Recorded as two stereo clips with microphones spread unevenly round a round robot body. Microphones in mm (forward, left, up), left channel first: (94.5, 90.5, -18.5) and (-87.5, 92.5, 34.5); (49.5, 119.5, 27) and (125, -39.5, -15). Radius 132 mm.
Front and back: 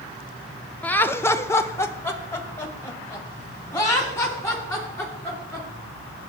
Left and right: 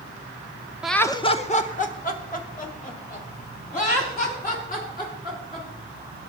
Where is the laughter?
20° right, 0.7 m; by 5.7 s 75° left, 6.5 m.